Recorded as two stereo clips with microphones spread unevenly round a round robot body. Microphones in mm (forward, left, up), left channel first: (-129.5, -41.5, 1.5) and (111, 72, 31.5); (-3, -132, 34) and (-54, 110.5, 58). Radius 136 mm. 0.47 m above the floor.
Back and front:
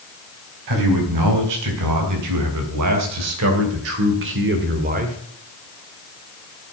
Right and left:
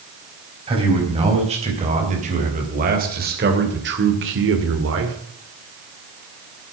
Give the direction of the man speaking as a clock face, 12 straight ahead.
11 o'clock.